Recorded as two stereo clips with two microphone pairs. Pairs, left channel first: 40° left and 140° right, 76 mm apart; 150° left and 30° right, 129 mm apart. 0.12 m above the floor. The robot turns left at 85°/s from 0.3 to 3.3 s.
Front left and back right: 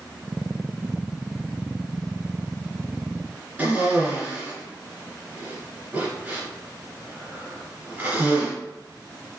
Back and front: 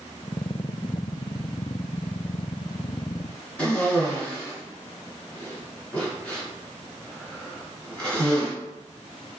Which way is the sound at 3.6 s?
145° right.